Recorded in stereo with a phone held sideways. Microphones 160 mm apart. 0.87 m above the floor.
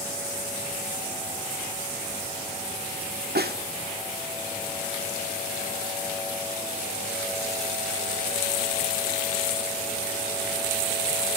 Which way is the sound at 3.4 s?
85° right.